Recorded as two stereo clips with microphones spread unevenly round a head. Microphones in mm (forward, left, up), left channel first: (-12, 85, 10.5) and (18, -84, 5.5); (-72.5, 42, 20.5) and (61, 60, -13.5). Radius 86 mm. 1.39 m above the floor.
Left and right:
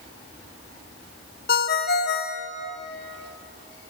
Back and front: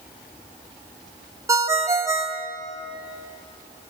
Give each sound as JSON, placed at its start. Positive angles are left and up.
{"t": 1.5, "sound": "a ringtone", "azimuth_deg": 80, "distance_m": 1.3}